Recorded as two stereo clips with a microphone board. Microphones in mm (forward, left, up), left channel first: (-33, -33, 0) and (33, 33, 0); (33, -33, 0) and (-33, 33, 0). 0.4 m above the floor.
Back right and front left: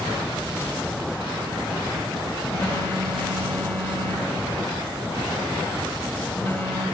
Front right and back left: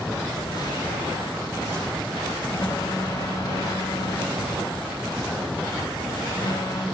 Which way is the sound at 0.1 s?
80° right.